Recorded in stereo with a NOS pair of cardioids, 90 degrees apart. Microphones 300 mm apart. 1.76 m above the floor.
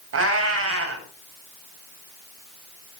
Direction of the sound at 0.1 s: 55° right.